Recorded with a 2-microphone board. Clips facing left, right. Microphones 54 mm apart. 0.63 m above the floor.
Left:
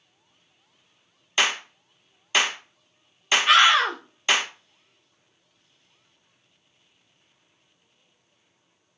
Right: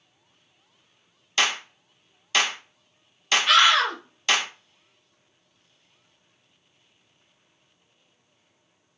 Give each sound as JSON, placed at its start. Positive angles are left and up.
{"t": 1.4, "sound": "a clap", "side_deg": 15, "distance_m": 0.8}
{"t": 3.5, "sound": "a scream", "side_deg": 25, "distance_m": 1.0}